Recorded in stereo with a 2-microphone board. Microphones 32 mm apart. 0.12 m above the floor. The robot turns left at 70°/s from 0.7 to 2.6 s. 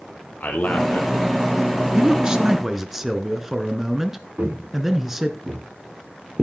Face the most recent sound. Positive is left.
turn(degrees=-45)  # may be behind; listen again after turning